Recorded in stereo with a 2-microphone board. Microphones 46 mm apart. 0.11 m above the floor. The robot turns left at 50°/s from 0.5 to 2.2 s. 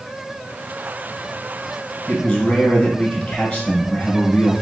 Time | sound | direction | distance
2.1 | a man speaking | 25° left (ahead or behind) | 1.2 m